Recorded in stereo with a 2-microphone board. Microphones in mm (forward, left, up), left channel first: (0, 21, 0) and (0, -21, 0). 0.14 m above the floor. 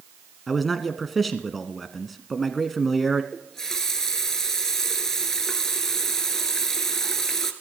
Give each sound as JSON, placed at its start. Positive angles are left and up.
{"t": 0.5, "sound": "a man speaking", "side_deg": 0, "distance_m": 1.1}
{"t": 3.3, "sound": "a running tap", "side_deg": 10, "distance_m": 1.3}